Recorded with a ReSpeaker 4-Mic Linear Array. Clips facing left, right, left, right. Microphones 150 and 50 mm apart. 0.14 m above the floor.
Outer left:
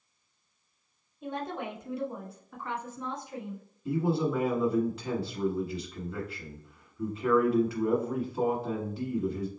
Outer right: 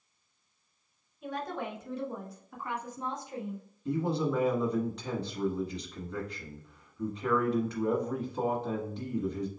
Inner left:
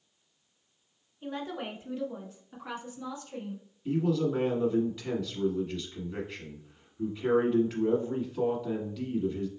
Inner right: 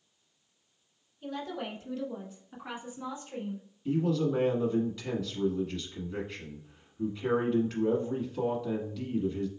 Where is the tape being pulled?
No tape being pulled in this recording.